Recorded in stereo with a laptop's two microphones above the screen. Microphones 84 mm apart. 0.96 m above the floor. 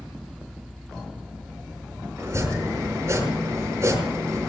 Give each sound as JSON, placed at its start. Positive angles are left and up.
{"t": 0.0, "sound": "a fan", "side_deg": 0, "distance_m": 3.5}
{"t": 2.2, "sound": "chopping", "side_deg": -35, "distance_m": 7.0}